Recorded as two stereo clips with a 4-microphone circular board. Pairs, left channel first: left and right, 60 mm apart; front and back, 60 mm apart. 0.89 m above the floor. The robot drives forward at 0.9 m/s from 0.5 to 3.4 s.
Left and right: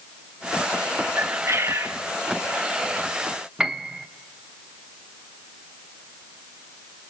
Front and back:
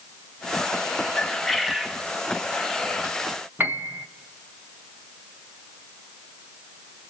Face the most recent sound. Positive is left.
turn(degrees=-160)